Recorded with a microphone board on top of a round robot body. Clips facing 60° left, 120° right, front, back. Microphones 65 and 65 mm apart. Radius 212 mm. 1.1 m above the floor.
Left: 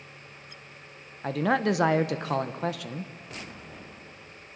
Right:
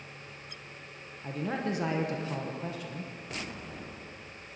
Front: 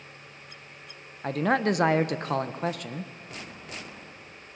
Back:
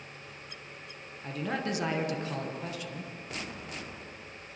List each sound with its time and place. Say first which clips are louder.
1.2 s a man speaking: left 8 dB, front 9 dB; 40° left, 1.1 m